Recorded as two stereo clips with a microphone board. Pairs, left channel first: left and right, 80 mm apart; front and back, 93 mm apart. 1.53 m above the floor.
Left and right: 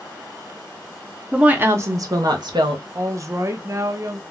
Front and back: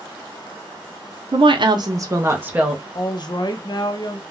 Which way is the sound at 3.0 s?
40° right.